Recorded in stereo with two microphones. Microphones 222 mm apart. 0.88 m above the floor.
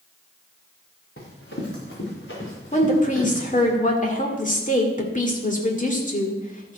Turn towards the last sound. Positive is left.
turn(degrees=35)  # may be behind; listen again after turning